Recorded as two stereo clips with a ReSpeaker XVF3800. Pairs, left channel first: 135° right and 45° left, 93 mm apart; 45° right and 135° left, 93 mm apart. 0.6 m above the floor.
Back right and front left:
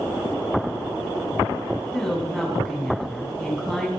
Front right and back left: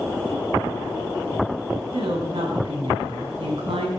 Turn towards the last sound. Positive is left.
turn(degrees=140)